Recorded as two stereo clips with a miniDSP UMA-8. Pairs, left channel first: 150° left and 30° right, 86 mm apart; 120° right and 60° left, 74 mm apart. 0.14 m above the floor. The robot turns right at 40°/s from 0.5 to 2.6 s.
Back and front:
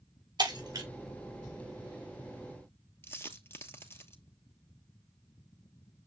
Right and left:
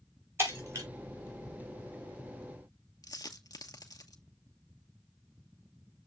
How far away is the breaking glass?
About 6 m.